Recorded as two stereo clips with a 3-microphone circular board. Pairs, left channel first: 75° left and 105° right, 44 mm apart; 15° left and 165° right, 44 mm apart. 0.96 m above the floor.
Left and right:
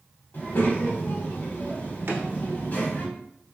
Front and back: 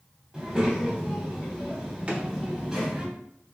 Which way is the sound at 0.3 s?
120° left.